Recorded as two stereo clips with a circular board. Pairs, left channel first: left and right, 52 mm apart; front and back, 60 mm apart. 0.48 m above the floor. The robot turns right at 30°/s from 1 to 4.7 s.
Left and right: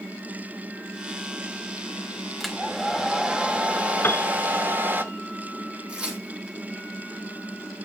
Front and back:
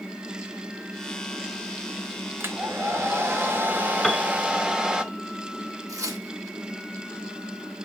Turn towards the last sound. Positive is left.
turn(degrees=-160)